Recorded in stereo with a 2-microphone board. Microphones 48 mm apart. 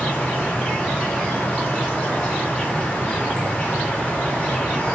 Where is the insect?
30° left (ahead or behind), 2.5 m.